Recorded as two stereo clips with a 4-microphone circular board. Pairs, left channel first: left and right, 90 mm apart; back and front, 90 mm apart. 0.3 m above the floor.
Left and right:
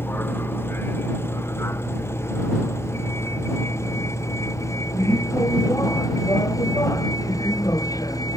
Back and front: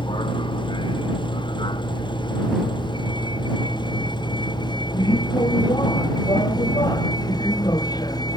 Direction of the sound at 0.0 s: 155° left.